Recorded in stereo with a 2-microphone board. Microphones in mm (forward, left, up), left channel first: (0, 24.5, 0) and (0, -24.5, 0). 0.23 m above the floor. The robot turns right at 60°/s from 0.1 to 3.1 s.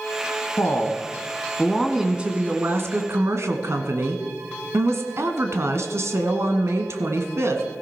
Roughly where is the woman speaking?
Left.